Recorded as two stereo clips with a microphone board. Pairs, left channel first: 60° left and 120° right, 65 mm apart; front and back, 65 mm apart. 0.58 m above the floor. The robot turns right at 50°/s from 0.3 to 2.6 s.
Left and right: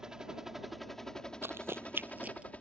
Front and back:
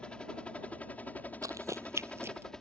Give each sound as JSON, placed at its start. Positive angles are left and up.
{"t": 0.0, "sound": "a helicopter", "azimuth_deg": -50}
{"t": 1.4, "sound": "running footsteps", "azimuth_deg": -165}